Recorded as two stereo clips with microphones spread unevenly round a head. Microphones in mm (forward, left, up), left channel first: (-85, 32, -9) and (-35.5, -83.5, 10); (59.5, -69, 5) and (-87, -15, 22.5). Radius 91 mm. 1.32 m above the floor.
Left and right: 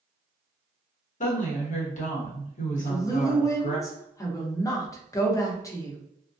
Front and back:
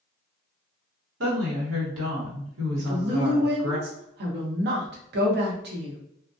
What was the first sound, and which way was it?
A woman speaking, 135° left.